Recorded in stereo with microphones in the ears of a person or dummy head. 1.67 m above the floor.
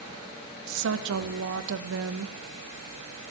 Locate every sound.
0.7 s a woman speaking: 80° right, 0.7 m